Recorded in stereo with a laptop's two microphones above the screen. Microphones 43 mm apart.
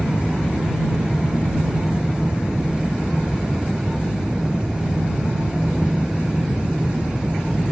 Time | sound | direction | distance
0.0 | a fan | 20° right (ahead or behind) | ?